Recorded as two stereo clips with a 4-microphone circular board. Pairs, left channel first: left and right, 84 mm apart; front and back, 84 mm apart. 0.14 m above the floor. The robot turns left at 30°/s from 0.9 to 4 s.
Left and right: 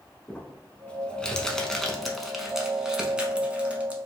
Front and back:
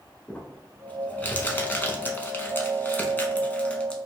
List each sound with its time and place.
0.3 s crumpling: 35° left, 0.7 m; by 4.0 s 55° right, 0.7 m